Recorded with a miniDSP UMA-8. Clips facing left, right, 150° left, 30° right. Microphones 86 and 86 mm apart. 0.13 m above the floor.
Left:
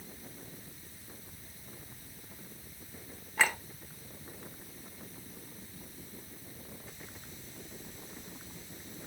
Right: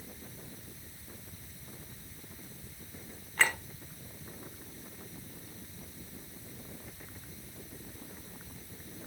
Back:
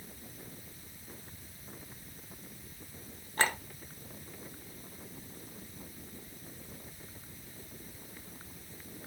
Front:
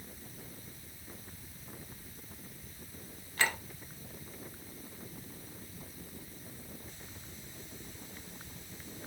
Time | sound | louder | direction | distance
3.4 | a clink | even, back 2 dB | 175° left | 1.0 m